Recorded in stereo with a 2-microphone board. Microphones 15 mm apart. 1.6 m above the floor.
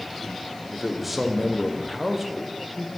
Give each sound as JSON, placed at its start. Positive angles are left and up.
{"t": 0.7, "sound": "a man speaking", "side_deg": -15, "distance_m": 0.8}